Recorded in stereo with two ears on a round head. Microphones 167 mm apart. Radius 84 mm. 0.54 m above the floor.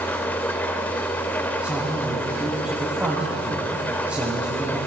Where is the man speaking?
10° right (ahead or behind), 3 m.